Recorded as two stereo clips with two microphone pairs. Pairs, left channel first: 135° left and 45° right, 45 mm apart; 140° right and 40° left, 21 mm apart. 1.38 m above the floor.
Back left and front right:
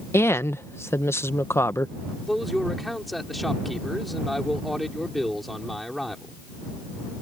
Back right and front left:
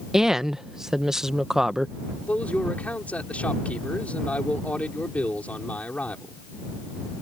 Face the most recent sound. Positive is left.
turn(degrees=-135)